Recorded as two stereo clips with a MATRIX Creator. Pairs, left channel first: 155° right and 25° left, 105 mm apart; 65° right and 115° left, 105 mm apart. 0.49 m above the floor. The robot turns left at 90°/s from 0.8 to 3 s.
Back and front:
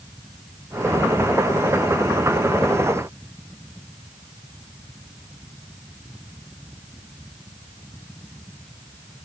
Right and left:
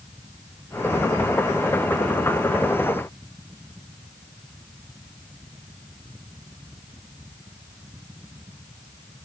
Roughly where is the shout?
No shout in this recording.